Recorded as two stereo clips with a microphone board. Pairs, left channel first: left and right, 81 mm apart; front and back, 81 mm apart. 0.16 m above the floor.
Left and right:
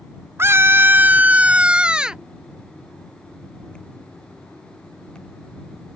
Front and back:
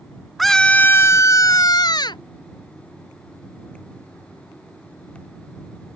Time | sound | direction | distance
0.4 | a scream | 95° right | ?